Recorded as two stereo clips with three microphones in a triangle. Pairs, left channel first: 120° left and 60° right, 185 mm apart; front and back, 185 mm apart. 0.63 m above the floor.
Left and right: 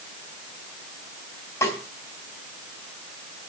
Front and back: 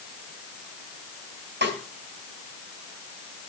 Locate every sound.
1.6 s a snare drum: 165° right, 4 m